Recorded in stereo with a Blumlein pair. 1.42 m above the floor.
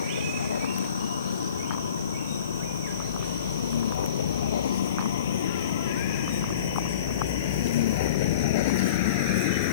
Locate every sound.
0.0 s a vehicle: 65° left; by 9.7 s 45° left